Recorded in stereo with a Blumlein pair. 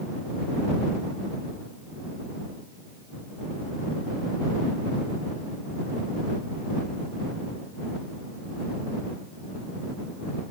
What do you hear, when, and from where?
Only background noise.